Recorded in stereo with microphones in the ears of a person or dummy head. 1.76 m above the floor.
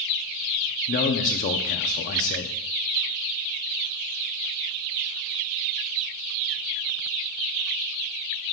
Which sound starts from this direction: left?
A man speaking, at 0.9 s.